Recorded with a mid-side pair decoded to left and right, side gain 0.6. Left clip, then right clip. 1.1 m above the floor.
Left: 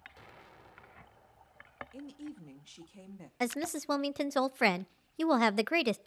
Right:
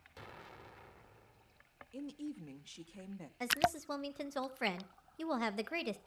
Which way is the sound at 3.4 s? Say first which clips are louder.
Right 2 dB; 50° left.